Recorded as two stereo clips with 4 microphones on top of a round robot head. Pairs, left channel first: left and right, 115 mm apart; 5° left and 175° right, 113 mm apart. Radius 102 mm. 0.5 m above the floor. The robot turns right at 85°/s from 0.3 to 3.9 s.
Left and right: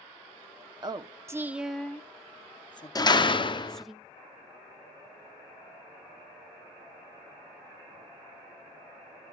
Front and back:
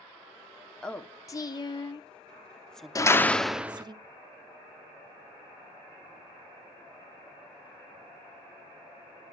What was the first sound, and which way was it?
A woman speaking, 75° right.